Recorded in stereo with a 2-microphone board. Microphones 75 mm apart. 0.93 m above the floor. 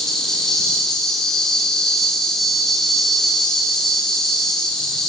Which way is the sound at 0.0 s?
5° left (ahead or behind).